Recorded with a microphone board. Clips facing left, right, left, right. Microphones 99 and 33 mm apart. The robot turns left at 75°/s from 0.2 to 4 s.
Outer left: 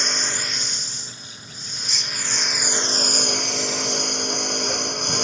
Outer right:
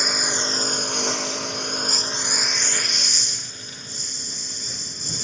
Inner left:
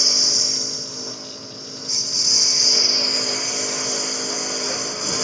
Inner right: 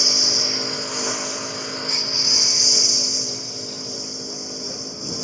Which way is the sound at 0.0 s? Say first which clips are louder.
Outer right 2 dB, inner right 1 dB; 5° right.